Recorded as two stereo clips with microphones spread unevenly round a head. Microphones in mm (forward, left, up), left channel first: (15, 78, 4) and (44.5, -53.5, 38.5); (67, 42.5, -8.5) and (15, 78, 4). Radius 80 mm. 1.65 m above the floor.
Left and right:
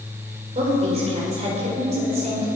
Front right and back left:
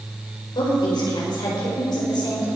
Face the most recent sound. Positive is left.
turn(degrees=-35)